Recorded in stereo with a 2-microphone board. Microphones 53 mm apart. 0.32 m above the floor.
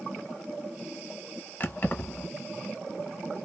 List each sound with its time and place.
1.6 s keys jangling: 35° left (ahead or behind), 1.0 m